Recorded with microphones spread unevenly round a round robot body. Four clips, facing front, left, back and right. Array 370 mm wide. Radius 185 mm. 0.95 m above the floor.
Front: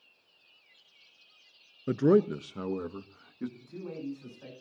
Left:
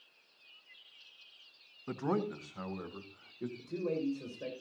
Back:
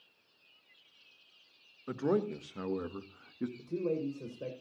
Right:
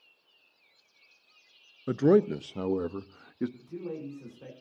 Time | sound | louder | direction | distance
1.9 | a man speaking | right 12 dB, front 8 dB | 35° right | 0.7 m
3.6 | a man speaking | left 3 dB, back 6 dB | 170° left | 5.5 m